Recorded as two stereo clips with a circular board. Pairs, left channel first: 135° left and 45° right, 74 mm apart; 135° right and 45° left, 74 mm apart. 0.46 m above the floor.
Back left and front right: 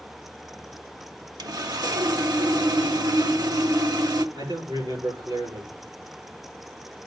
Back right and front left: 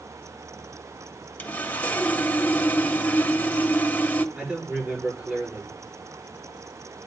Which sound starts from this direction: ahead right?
A man speaking, at 4.3 s.